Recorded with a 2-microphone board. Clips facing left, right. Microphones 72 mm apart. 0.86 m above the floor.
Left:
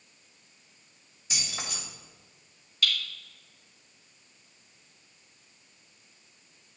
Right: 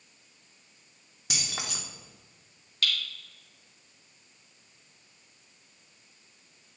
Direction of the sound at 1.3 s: 80° right.